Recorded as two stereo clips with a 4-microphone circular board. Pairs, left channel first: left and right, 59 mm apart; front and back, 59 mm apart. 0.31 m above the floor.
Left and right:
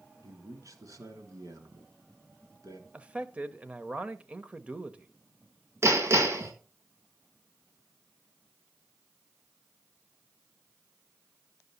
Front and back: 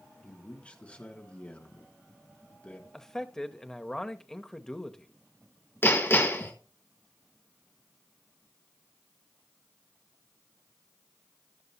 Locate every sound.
0.2 s a man speaking: 70° right, 3.5 m
2.9 s a man speaking: 70° right, 0.9 m
5.8 s hammering: 50° right, 3.5 m